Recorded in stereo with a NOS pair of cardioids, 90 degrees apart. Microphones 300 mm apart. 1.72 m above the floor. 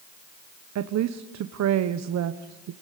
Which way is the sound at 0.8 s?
65° right.